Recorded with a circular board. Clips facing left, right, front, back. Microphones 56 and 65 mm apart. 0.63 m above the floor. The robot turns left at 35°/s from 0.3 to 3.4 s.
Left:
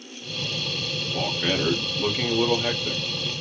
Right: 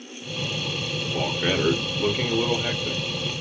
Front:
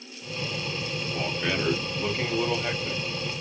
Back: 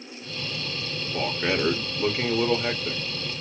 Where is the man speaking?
155° right, 1.1 m; by 3.0 s 140° left, 1.1 m.